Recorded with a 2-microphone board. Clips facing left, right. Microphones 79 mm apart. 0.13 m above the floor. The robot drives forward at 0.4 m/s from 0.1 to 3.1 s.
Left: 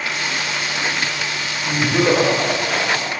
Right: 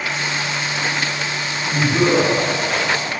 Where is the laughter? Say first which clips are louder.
Even; 30° left (ahead or behind), 6 m; by 3.1 s 35° left (ahead or behind), 5.5 m.